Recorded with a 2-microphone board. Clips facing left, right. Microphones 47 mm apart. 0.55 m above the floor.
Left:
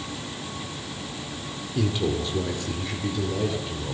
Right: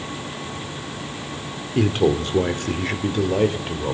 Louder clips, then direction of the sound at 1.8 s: Right 7 dB; 50° right (ahead or behind).